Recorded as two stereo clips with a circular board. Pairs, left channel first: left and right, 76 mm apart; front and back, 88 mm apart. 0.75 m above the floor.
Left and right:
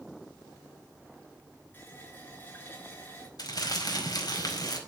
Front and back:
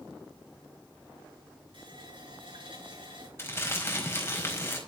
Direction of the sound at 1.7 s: 155° left.